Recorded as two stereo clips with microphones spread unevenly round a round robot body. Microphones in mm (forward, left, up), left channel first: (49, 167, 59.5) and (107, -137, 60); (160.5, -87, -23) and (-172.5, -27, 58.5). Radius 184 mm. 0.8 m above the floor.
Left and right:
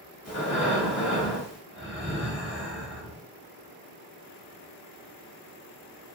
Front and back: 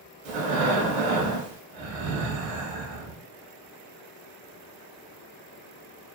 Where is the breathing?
165° left, 0.8 m.